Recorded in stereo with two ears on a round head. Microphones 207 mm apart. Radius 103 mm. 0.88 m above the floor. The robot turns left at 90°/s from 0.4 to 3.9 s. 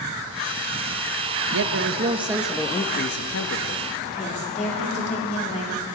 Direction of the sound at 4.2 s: 30° left (ahead or behind).